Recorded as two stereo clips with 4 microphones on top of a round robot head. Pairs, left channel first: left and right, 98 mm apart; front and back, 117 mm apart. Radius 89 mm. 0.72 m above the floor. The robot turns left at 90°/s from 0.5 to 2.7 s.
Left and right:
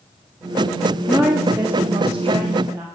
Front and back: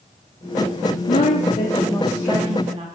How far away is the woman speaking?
About 1.7 m.